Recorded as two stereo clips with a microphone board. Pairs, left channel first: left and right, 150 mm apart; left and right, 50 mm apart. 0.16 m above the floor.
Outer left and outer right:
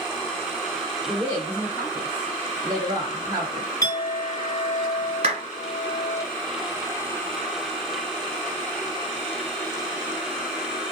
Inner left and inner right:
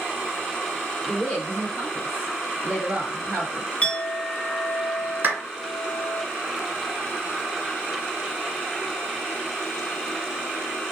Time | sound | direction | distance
1.1 | a woman speaking | 25° left (ahead or behind) | 1.4 m
3.8 | a clink | 20° left (ahead or behind) | 1.4 m
5.2 | a clap | 40° right (ahead or behind) | 1.7 m